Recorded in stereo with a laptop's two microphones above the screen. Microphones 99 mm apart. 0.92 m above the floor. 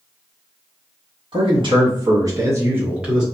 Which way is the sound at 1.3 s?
60° right (ahead or behind).